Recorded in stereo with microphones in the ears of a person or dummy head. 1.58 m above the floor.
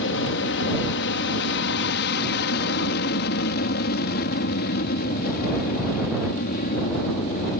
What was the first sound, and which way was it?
An aircraft, 65° left (ahead or behind).